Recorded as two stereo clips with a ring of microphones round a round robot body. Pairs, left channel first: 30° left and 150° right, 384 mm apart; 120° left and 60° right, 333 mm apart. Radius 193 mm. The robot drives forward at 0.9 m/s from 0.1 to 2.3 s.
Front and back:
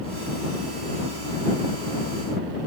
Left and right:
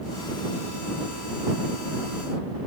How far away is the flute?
No flute in this recording.